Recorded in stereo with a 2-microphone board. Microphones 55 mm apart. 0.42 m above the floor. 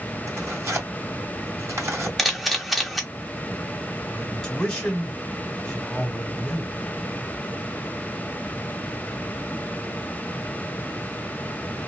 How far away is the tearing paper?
About 2 m.